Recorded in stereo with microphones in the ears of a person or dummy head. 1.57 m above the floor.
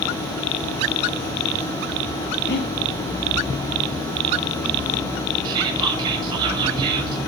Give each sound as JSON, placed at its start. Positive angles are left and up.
{"t": 2.5, "sound": "breathing", "side_deg": 65, "distance_m": 3.0}
{"t": 5.4, "sound": "whispering", "side_deg": -25, "distance_m": 5.5}